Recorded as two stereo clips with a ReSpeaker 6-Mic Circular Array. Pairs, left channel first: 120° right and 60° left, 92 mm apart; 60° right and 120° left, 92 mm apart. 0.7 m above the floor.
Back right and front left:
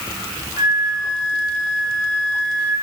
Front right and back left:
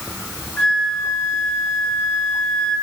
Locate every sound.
0.6 s a flute: 20° left, 8.5 m